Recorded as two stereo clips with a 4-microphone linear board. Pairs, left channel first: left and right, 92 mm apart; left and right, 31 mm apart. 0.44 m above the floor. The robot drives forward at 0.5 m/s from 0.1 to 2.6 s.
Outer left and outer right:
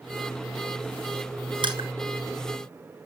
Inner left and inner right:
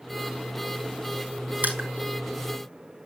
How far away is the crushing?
About 3 m.